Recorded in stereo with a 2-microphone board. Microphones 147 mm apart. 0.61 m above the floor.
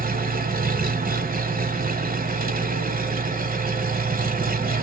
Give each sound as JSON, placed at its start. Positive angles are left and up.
{"t": 0.0, "sound": "an engine running", "side_deg": -75, "distance_m": 1.4}